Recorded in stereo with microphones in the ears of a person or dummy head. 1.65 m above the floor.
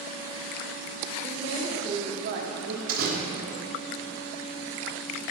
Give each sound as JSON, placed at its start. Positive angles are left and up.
{"t": 1.2, "sound": "a woman speaking", "side_deg": -20, "distance_m": 1.2}
{"t": 2.9, "sound": "a door slam", "side_deg": -50, "distance_m": 1.0}